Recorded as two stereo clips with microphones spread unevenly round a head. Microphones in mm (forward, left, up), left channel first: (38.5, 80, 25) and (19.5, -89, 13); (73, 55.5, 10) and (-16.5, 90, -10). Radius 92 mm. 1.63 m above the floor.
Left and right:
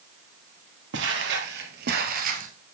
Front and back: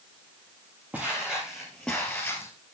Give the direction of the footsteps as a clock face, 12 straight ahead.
4 o'clock.